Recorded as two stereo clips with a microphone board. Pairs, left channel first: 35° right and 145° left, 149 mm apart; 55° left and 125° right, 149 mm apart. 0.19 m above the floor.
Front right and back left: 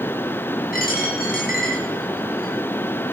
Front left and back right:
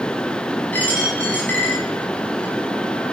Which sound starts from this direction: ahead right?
A dropped coin, at 0.7 s.